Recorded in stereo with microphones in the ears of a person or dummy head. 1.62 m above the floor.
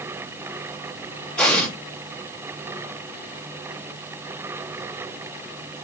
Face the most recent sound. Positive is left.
turn(degrees=10)  # may be behind; listen again after turning